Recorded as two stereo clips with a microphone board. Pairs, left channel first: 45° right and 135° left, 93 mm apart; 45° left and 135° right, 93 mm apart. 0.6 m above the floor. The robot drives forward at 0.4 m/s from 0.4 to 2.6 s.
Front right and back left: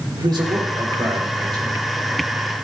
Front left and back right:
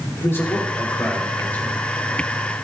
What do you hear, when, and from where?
0.2 s a man speaking: 105° left, 2.5 m; by 1.8 s 120° left, 3 m